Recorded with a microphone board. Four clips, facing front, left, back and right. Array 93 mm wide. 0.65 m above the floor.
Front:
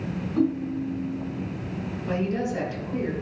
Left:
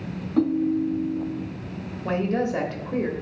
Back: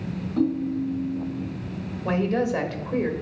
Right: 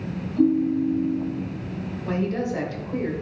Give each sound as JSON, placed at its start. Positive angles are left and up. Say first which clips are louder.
{"t": 0.4, "sound": "a ringtone", "louder": "right 2 dB, back 1 dB", "azimuth_deg": 85, "distance_m": 0.8}
{"t": 2.0, "sound": "a woman speaking", "louder": "left 2 dB, back 4 dB", "azimuth_deg": 130, "distance_m": 1.3}